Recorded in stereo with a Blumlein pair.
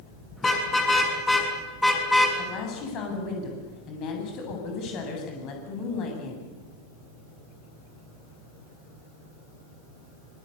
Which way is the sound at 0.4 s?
10° left.